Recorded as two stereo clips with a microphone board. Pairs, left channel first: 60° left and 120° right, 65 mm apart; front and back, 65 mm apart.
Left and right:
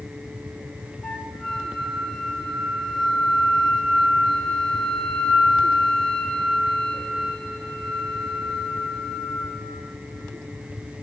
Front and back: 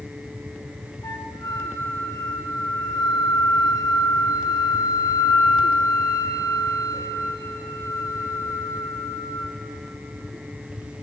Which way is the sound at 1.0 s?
25° right.